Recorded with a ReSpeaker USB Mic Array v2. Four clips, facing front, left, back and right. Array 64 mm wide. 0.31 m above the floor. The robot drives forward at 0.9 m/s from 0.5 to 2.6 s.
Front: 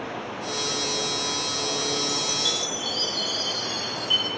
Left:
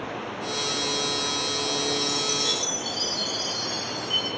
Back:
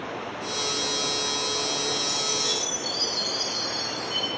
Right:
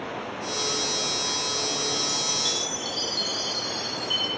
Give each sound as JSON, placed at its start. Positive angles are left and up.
{"t": 2.0, "sound": "a chime", "azimuth_deg": -10, "distance_m": 8.0}